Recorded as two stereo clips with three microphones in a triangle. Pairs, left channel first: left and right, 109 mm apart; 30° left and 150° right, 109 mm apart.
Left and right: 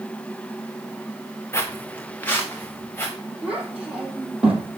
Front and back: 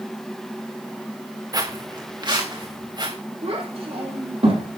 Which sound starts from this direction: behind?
A child speaking, at 3.4 s.